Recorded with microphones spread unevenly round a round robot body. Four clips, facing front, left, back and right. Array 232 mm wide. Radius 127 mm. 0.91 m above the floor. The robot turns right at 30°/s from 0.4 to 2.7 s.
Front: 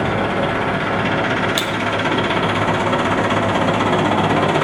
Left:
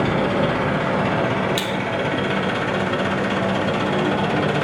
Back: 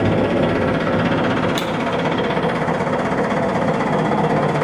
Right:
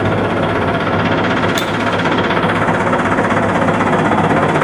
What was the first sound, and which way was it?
An engine running, 140° right.